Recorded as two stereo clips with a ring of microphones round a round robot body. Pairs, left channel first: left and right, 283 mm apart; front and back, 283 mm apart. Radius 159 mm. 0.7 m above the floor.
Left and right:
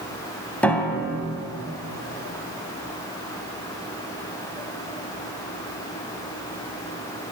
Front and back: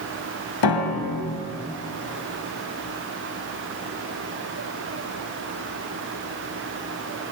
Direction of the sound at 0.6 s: 5° left.